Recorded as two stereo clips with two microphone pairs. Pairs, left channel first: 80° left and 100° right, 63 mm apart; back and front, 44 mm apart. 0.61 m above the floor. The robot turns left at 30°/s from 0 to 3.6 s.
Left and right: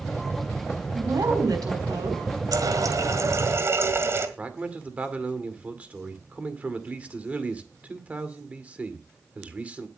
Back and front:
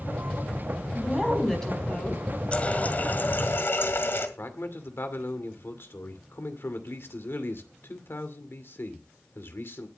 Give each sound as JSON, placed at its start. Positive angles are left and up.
{"t": 0.9, "sound": "a woman speaking", "azimuth_deg": -80, "distance_m": 4.5}
{"t": 2.5, "sound": "a running tap", "azimuth_deg": -115, "distance_m": 1.9}
{"t": 4.4, "sound": "a man speaking", "azimuth_deg": -165, "distance_m": 2.0}